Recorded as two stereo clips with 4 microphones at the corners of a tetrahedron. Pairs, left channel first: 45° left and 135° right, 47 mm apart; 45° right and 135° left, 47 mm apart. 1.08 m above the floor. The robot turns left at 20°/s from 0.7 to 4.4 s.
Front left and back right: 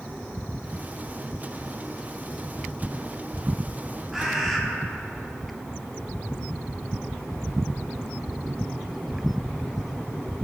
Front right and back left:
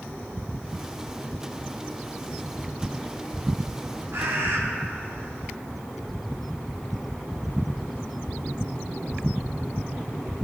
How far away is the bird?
About 0.9 m.